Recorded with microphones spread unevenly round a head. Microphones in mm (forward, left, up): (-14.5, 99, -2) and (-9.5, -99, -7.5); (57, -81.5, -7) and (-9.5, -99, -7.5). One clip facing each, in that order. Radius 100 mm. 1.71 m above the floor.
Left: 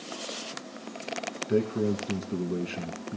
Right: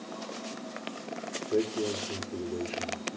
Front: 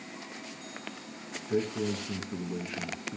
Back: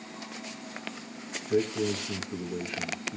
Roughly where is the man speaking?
Left.